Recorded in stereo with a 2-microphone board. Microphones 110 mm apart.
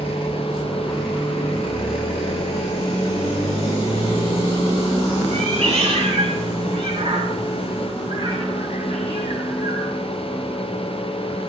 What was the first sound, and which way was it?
A cat meowing, 65° right (ahead or behind).